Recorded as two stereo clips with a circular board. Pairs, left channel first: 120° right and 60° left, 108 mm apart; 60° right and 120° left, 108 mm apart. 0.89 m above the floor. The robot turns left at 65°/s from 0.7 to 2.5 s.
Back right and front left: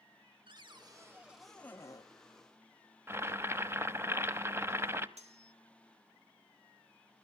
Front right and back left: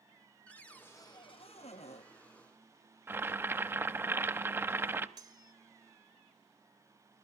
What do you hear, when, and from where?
0.5 s a cupboard door: 20° left, 0.8 m; by 2.1 s 70° right, 0.8 m
3.1 s boiling: 85° left, 0.7 m
5.2 s cutlery clinking: 65° left, 1.1 m